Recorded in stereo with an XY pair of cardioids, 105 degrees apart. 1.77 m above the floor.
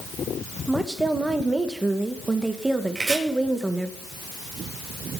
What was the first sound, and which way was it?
A woman speaking, 15° right.